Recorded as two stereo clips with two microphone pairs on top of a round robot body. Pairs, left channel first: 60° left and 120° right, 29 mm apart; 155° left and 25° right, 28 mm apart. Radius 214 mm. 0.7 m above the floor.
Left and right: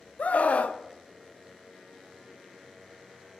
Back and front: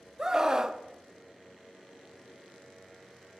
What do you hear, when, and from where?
0.2 s a scream: 40° left, 1.2 m